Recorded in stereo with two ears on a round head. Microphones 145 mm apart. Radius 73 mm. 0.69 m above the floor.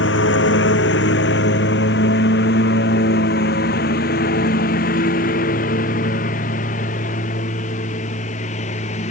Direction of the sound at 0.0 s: 90° left.